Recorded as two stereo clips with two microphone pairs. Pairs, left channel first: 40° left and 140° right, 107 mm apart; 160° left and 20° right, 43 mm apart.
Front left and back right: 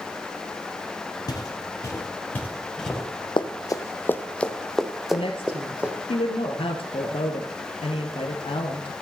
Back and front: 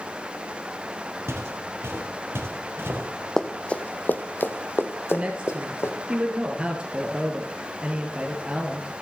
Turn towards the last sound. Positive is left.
turn(degrees=40)